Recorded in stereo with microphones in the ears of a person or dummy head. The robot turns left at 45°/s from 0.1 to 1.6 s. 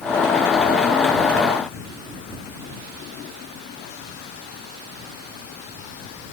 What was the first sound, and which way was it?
Only background noise.